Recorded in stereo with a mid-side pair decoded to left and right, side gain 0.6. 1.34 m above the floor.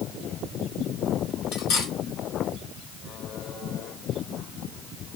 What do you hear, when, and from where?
1.5 s cutlery clinking: 60° left, 1.6 m